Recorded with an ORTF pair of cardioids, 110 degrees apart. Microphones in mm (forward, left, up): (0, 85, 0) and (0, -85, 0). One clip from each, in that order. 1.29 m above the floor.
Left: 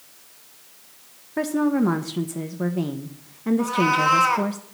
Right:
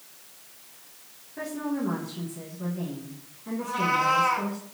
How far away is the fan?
No fan in this recording.